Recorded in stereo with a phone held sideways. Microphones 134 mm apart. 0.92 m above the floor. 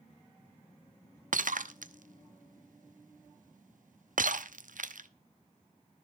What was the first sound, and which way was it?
Breaking glass, 80° right.